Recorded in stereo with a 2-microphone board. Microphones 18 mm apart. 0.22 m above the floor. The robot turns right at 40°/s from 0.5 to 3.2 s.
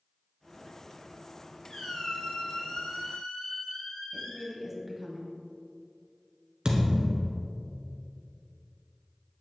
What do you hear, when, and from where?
1.7 s a squeak: 35° left, 2.5 m; by 4.6 s 95° left, 2.5 m
4.1 s a woman speaking: 20° right (ahead or behind), 1.3 m
6.7 s a thud: 55° right (ahead or behind), 1.5 m